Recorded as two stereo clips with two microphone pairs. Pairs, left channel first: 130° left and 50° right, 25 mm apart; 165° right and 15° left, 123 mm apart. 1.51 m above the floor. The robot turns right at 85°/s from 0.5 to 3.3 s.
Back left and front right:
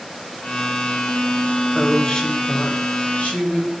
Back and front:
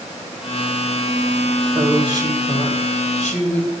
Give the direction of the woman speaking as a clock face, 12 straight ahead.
11 o'clock.